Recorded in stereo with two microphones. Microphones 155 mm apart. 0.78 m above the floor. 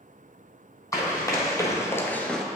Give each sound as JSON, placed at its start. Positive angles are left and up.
{"t": 0.9, "sound": "running footsteps", "side_deg": 20, "distance_m": 2.0}